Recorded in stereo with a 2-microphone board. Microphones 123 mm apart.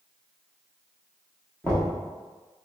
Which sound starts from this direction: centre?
Knocking, at 1.6 s.